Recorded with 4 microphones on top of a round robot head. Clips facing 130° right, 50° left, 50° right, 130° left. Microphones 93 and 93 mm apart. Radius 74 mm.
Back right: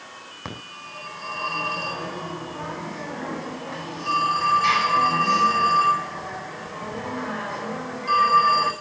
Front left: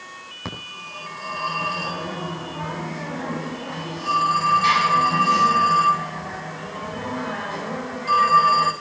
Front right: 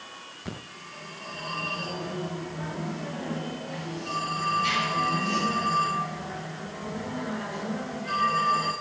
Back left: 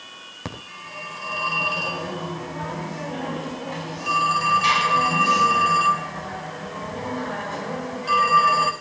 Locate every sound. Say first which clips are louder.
0.5 s a phone ringing: front left 2 dB, back left 5 dB; 135° left, 4 m